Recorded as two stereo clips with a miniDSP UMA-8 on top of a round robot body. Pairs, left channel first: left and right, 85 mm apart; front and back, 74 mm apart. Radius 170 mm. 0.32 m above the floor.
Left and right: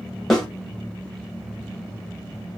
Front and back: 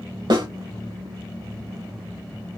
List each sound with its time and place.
0.3 s a snare drum: 175° left, 1.7 m